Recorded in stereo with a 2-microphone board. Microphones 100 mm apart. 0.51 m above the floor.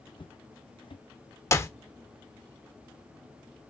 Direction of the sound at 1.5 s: 30° left (ahead or behind).